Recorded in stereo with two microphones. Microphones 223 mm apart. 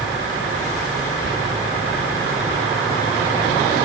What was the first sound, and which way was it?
Whispering, 55° right (ahead or behind).